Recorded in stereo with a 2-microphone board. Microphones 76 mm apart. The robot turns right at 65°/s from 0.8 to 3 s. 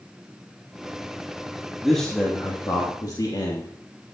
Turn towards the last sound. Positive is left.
turn(degrees=70)